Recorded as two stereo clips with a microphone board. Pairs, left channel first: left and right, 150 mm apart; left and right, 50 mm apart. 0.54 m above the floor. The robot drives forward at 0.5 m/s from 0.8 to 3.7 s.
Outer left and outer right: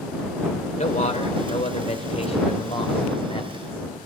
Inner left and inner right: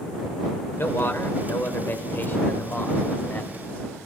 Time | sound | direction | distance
0.8 | a man speaking | 50° left (ahead or behind) | 2.5 m